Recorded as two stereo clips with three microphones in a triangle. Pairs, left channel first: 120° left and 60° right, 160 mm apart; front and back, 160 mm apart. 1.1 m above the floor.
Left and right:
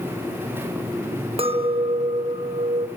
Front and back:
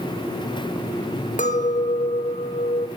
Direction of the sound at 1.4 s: 15° right.